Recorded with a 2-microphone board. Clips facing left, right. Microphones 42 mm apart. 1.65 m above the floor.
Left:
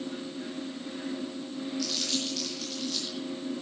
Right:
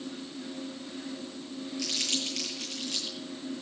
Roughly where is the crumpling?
Right.